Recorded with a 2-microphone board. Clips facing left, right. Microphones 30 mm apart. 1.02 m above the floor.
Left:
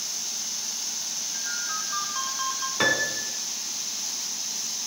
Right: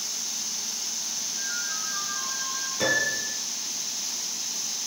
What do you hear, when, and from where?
1.3 s a ringtone: 50° left (ahead or behind), 3 m
2.8 s a piano: 45° left (ahead or behind), 2.5 m